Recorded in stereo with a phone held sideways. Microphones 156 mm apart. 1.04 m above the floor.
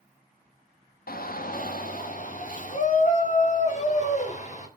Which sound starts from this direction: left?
A shout, at 1.1 s.